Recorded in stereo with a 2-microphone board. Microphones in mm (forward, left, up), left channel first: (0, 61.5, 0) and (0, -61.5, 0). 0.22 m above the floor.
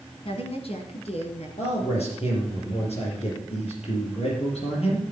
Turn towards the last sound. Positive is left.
turn(degrees=60)  # may be behind; listen again after turning